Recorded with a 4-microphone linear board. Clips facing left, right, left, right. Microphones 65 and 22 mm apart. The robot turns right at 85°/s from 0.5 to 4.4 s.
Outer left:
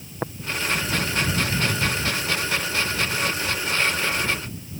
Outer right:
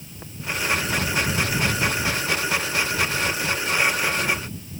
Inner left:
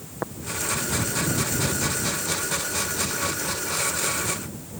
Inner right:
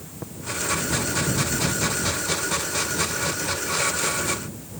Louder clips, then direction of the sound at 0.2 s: Outer left 15 dB, inner left 7 dB; 50° left (ahead or behind).